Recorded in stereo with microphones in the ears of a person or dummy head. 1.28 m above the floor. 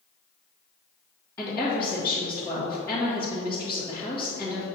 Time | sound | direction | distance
1.4 | a woman speaking | 15° left (ahead or behind) | 1.8 m